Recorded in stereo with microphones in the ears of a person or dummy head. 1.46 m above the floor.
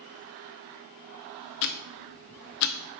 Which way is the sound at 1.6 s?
55° left (ahead or behind).